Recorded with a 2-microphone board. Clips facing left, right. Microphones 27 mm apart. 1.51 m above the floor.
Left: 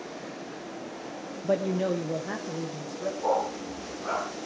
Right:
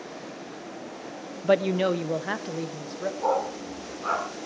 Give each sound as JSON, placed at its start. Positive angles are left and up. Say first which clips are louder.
{"t": 1.4, "sound": "a woman speaking", "louder": "right 4 dB", "side_deg": -70, "distance_m": 0.6}
{"t": 3.2, "sound": "a dog barking", "louder": "right 1 dB", "side_deg": -65, "distance_m": 6.5}